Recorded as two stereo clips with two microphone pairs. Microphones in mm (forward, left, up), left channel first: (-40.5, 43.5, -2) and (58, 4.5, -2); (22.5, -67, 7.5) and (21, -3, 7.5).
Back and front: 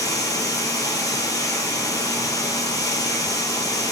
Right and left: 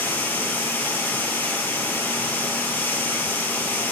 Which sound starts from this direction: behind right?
Running water, at 0.0 s.